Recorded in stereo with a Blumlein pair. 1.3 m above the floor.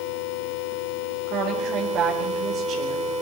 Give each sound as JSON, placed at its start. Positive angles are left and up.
{"t": 1.3, "sound": "a woman speaking", "azimuth_deg": -30, "distance_m": 4.0}